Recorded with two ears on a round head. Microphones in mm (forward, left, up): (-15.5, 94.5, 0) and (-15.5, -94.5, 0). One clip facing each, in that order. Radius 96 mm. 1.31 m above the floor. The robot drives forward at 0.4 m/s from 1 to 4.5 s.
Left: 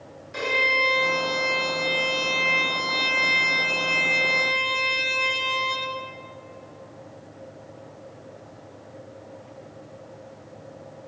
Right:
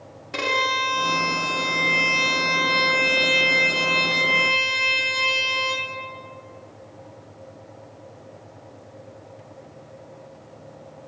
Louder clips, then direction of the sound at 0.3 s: Even; 75° right (ahead or behind).